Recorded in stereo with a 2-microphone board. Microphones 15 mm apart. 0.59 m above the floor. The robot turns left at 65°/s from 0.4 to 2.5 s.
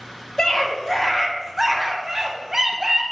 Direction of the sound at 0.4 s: 70° left.